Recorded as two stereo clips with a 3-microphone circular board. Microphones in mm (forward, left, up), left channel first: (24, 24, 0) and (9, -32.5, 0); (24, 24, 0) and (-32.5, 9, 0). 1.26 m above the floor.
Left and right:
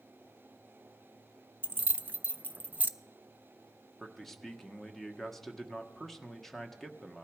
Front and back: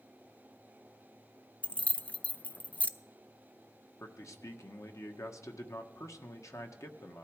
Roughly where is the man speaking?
Ahead.